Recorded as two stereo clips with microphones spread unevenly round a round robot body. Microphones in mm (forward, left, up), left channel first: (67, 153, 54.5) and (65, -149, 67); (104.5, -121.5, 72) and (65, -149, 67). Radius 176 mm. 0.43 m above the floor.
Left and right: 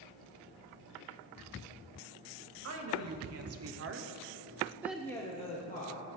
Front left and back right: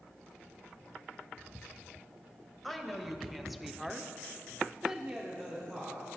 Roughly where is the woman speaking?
Ahead right.